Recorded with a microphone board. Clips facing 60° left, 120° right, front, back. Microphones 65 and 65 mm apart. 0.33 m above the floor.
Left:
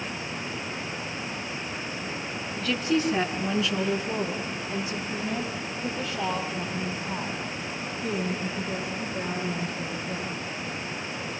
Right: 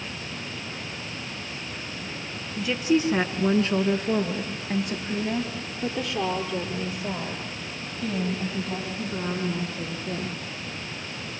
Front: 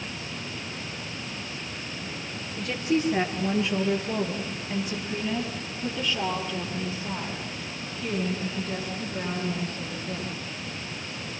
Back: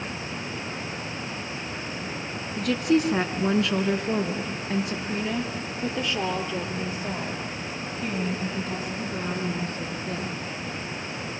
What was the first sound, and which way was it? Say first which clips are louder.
A woman speaking: right 3 dB, back 4 dB; 160° left.